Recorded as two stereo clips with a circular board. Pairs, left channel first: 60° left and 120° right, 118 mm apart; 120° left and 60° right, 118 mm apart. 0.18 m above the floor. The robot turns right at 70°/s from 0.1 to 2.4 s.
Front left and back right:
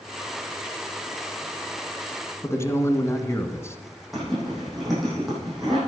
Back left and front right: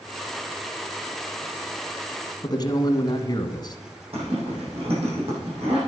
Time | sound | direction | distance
2.4 | a man speaking | 110° left | 1.3 m
4.1 | a zipper | 30° right | 6 m